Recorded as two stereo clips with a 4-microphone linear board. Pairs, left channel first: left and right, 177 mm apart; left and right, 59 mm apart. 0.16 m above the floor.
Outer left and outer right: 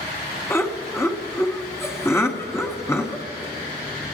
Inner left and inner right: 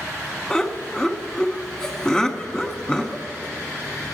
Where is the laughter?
15° left (ahead or behind), 1.2 m.